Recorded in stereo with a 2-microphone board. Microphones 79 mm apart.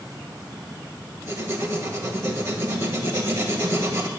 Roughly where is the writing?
Right.